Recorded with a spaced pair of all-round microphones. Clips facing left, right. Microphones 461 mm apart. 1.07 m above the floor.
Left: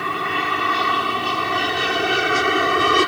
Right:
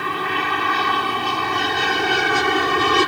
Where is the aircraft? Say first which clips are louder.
Right 1 dB; 5° right (ahead or behind); by 3.1 s 10° right (ahead or behind).